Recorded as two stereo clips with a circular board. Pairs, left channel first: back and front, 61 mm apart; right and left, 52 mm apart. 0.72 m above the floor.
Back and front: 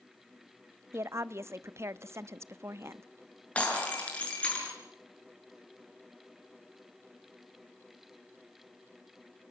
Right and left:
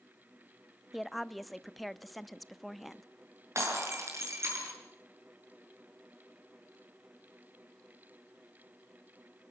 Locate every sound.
0.9 s a woman speaking: straight ahead, 0.6 m
3.5 s breaking glass: 110° left, 6.5 m